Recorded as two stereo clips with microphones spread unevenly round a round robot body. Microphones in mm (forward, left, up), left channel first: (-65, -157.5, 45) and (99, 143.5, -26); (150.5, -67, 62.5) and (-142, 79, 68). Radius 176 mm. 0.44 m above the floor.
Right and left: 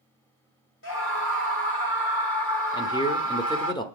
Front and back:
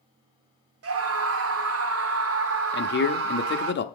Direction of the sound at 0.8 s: 175° right.